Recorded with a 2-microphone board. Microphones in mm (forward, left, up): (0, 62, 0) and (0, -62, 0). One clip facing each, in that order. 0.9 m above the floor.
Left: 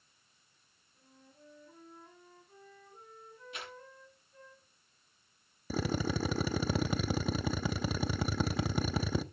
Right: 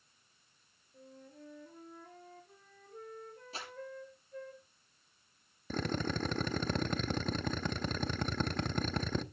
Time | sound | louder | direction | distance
0.9 | a flute | right 8 dB | 70° right (ahead or behind) | 4 m
3.5 | crumpling | left 1 dB | 35° right (ahead or behind) | 6.5 m
5.7 | a drill | left 2 dB | 5° left (ahead or behind) | 0.6 m